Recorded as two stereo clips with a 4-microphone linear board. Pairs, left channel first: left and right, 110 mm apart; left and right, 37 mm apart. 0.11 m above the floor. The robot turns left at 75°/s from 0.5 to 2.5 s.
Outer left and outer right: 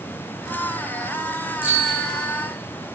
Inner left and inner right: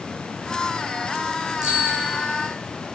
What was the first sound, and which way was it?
A bicycle bell, 160° right.